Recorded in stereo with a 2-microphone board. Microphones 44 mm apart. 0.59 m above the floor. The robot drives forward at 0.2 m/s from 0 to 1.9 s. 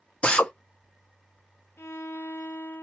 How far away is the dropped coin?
I don't hear a dropped coin.